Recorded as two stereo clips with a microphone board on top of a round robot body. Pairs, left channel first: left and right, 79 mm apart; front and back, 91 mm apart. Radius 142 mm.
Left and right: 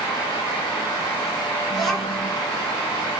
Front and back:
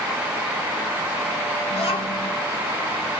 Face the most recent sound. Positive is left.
turn(degrees=0)